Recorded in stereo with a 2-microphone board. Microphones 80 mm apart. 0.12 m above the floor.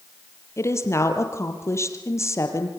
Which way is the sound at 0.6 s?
40° left (ahead or behind).